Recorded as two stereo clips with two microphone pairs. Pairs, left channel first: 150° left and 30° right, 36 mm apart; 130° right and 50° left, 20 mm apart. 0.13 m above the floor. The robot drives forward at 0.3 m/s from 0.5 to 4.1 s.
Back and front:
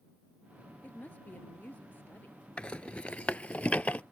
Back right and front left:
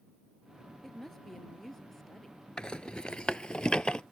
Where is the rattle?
160° right; by 4.0 s 165° right.